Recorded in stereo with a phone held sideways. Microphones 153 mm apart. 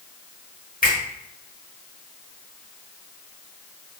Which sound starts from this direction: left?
A finger snap, at 0.8 s.